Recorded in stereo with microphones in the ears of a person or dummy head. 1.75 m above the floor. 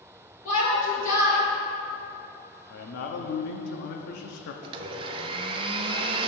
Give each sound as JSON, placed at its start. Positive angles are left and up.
{"t": 0.5, "sound": "a shout", "side_deg": 45, "distance_m": 3.0}
{"t": 2.7, "sound": "a man speaking", "side_deg": 60, "distance_m": 0.8}
{"t": 4.6, "sound": "a blender", "side_deg": -30, "distance_m": 0.6}